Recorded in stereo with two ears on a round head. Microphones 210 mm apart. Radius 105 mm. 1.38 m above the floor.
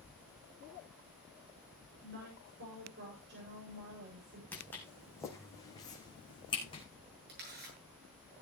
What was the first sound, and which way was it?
A woman speaking, 45° right (ahead or behind).